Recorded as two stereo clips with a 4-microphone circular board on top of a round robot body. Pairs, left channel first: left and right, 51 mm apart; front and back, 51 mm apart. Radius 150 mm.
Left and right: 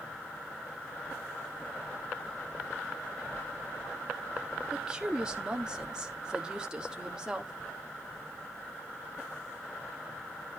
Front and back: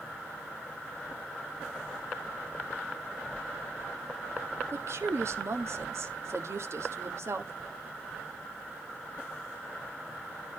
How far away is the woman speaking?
About 1.9 m.